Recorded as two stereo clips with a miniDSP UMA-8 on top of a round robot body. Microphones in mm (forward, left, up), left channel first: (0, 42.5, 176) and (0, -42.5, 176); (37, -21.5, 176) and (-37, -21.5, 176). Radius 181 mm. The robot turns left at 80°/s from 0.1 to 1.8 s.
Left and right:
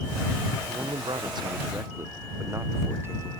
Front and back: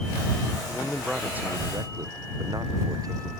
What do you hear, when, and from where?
0.7 s a man speaking: 60° right; by 3.3 s 150° right